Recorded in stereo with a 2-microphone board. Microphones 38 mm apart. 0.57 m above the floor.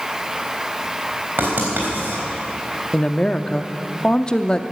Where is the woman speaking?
20° left (ahead or behind), 0.6 m.